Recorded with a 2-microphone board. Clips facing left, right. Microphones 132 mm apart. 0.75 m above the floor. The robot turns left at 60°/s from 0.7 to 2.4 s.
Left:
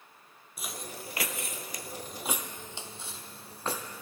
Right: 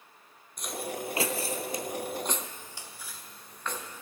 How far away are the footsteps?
About 1.0 m.